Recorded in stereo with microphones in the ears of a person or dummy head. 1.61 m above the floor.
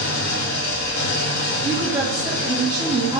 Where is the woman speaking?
25° right (ahead or behind), 0.6 m.